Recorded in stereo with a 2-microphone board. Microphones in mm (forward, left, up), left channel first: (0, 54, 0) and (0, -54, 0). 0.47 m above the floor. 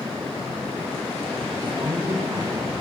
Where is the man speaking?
35° right (ahead or behind), 1.4 m.